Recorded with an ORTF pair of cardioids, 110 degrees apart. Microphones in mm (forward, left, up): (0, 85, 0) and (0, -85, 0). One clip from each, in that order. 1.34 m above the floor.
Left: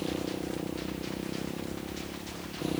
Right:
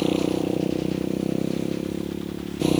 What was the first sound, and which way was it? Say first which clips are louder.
A motorcycle: right 11 dB; 65° right.